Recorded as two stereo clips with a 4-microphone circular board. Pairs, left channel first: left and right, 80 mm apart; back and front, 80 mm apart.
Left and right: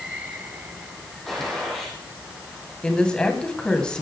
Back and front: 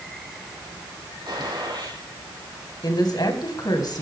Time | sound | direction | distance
1.3 | a gunshot | straight ahead | 5 m
2.8 | a woman speaking | 165° left | 2.5 m